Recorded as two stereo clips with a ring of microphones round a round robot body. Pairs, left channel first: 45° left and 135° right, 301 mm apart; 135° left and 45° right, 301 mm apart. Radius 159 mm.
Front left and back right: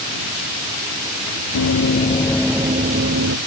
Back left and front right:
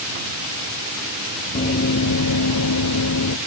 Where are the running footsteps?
75° left; by 3.4 s straight behind.